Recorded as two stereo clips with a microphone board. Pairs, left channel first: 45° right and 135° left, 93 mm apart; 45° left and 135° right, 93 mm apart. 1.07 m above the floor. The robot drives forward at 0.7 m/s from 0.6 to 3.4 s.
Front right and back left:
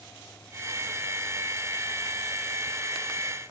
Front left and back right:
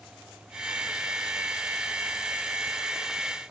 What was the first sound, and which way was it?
Only background noise.